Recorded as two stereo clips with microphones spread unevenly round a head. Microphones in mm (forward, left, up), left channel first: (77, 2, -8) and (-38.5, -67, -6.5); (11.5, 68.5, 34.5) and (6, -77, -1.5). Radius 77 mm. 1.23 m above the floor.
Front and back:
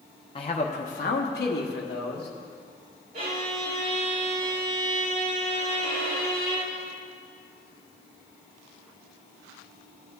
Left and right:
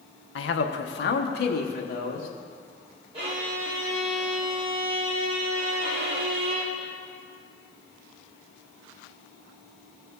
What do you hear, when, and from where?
0.3 s a man speaking: 90° left, 0.8 m; by 2.3 s 50° left, 1.5 m
3.1 s a violin: 145° right, 4 m